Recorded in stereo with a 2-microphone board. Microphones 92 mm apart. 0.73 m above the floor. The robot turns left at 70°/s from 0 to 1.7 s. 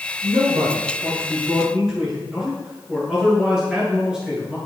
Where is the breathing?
No breathing in this recording.